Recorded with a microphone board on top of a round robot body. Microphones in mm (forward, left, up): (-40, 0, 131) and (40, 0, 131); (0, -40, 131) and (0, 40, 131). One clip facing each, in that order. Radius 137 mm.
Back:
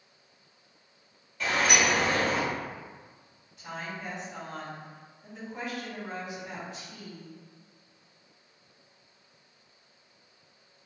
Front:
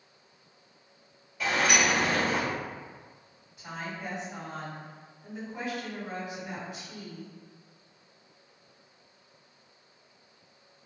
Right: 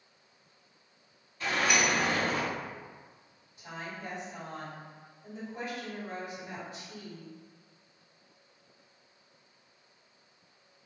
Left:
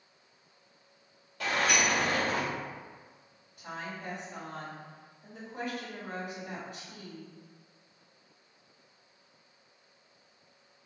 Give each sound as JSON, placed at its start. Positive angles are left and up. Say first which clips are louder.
{"t": 1.4, "sound": "a sliding door", "louder": "even, even", "azimuth_deg": 85, "distance_m": 1.4}
{"t": 3.6, "sound": "a woman speaking", "louder": "even, left 1 dB", "azimuth_deg": 75, "distance_m": 2.0}